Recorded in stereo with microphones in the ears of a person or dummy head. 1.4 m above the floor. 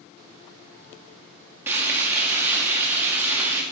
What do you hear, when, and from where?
1.7 s frying: 10° right (ahead or behind), 1.6 m